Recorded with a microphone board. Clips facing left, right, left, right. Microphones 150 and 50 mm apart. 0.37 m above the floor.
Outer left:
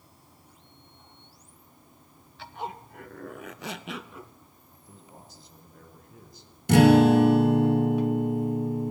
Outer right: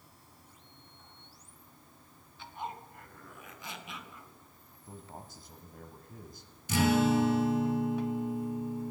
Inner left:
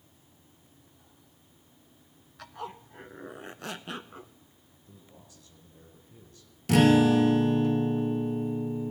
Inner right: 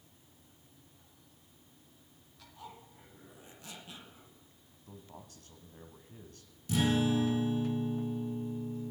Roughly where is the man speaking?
Right.